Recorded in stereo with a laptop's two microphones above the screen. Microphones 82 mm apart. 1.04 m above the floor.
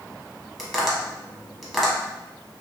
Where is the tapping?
5° right (ahead or behind), 0.7 m.